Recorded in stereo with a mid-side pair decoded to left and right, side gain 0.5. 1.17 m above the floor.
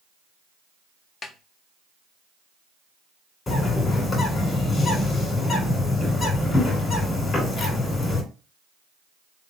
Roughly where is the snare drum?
Ahead left.